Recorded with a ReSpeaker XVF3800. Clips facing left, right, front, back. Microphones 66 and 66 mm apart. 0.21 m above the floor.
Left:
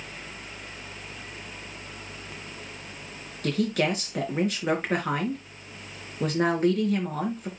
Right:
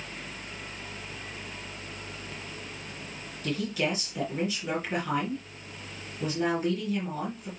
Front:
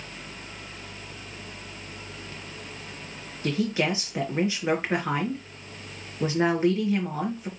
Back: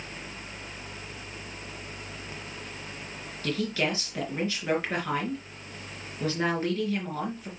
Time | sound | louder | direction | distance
3.4 | a woman speaking | left 4 dB, front 3 dB | 70° left | 3.5 m